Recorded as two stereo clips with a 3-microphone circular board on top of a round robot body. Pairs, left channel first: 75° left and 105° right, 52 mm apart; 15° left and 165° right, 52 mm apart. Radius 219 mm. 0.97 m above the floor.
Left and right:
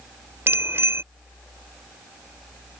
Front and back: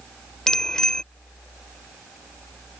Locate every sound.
0.5 s a bicycle bell: 65° right